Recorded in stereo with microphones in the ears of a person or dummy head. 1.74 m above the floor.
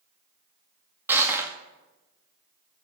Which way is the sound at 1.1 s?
10° right (ahead or behind).